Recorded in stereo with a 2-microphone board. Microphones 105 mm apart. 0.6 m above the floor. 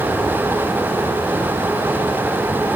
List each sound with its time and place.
Only background noise.